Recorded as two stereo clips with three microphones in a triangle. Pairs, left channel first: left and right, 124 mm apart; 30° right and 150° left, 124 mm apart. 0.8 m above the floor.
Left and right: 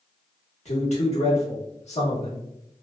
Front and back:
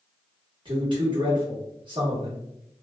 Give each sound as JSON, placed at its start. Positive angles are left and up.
{"t": 0.7, "sound": "a man speaking", "azimuth_deg": 105, "distance_m": 1.2}